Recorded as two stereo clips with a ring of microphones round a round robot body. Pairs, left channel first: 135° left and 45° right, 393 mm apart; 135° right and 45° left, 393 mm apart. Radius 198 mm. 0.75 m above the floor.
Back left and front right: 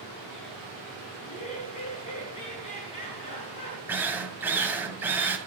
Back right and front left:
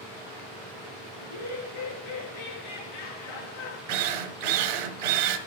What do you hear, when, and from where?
1.2 s laughter: 150° right, 8 m
3.9 s a drill: 40° left, 1.9 m